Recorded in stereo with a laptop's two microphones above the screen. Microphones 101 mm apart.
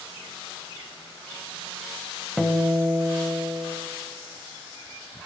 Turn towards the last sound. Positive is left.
turn(degrees=0)  # may be behind; listen again after turning